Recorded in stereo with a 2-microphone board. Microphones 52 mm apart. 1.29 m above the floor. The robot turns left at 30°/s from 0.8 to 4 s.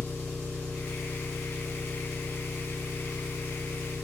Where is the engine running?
20° left (ahead or behind), 1.0 m; by 4.0 s 10° right (ahead or behind), 1.0 m.